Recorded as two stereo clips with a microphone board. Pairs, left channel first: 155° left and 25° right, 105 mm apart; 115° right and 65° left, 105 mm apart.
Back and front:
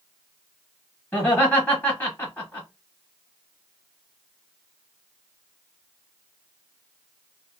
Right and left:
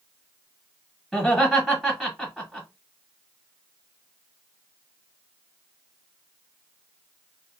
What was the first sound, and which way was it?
Laughter, 160° left.